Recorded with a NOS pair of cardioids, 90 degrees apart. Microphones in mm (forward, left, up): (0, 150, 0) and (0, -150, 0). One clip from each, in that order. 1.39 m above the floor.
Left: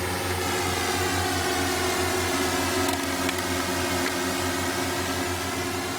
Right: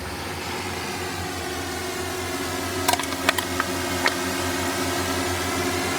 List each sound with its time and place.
0.0 s a drone: 45° left; by 6.0 s 30° right
2.9 s crushing: 65° right